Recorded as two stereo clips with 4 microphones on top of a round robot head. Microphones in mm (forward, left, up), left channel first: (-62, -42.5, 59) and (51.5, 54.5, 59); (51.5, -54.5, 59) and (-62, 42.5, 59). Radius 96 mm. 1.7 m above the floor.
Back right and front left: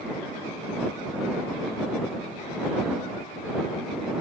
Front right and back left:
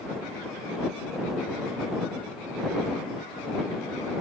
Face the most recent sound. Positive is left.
No sound to turn to.